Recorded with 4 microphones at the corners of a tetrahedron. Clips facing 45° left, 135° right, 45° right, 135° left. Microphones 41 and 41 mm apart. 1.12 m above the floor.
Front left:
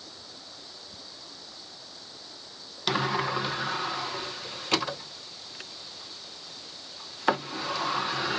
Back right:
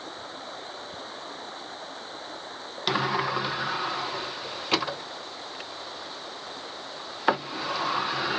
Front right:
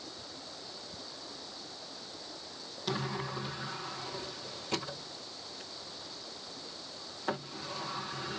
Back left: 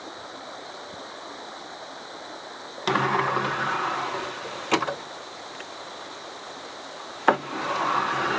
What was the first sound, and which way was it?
Running water, straight behind.